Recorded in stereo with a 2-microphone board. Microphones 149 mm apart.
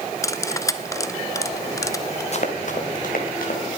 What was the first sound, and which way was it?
Cutlery clinking, 20° left (ahead or behind).